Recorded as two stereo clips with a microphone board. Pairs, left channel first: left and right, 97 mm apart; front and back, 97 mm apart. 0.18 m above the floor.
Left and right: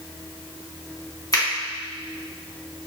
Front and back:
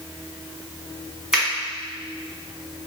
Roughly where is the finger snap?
Left.